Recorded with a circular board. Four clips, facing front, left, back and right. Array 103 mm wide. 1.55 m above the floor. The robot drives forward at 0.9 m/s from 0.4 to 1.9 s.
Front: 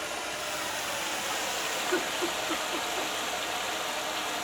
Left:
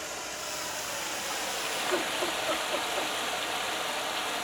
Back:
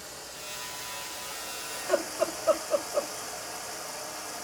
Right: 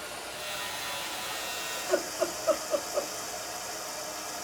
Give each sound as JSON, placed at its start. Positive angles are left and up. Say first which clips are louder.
{"t": 0.0, "sound": "running water", "louder": "left 1 dB, front 9 dB", "azimuth_deg": 15, "distance_m": 2.0}
{"t": 1.7, "sound": "laughter", "louder": "right 3 dB, back 5 dB", "azimuth_deg": -160, "distance_m": 6.0}